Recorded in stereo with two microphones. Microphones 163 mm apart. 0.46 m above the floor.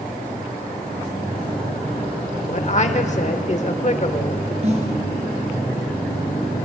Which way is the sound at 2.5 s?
45° left (ahead or behind).